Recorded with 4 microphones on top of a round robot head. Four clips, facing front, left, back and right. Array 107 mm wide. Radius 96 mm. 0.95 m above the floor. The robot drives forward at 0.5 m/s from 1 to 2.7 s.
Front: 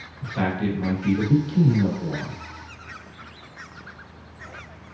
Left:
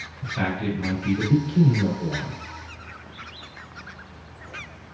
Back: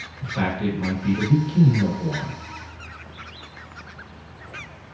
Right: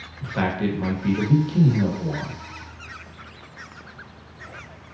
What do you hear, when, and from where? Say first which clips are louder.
0.2 s a man speaking: right 3 dB, even; 90° right, 1.3 m; by 2.4 s 120° right, 1.5 m